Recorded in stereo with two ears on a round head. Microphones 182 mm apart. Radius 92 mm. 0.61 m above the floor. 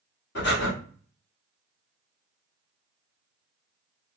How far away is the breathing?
About 1.2 m.